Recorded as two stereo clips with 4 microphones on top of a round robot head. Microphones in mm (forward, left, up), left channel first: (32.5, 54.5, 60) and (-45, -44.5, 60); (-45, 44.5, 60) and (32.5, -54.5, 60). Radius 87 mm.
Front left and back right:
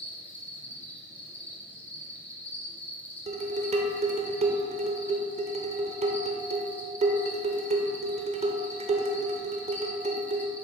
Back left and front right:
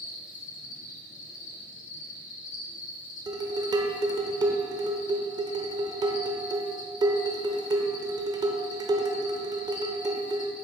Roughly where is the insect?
Behind left.